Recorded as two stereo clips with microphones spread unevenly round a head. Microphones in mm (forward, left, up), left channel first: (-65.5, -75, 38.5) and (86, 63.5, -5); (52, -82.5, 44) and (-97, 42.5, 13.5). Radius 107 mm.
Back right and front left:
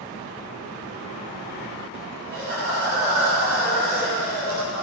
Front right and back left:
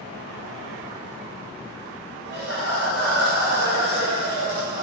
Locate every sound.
2.2 s laughter: 95° left, 7 m